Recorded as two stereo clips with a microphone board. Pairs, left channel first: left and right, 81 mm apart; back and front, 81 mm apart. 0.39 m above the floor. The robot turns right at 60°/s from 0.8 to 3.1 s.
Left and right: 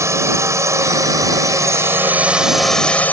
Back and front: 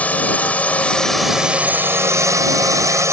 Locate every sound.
0.0 s a drone: 120° right; by 3.1 s 30° left